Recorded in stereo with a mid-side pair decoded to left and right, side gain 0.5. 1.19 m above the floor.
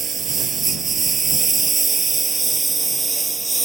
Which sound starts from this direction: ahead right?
A lawn mower, at 0.0 s.